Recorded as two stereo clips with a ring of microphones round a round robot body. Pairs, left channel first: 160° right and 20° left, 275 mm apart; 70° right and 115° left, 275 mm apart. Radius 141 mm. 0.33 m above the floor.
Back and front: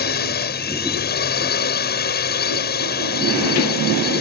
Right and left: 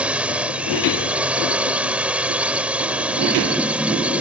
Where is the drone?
165° right.